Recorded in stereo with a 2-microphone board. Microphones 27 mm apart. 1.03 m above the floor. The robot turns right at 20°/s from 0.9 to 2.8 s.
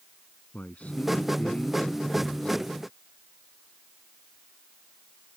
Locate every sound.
0.5 s a man speaking: 95° left; by 2.6 s 130° left